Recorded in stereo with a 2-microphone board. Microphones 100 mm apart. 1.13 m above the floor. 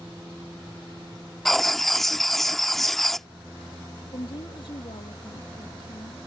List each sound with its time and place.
1.4 s writing: centre (ahead or behind)
4.1 s a woman speaking: 60° left (ahead or behind)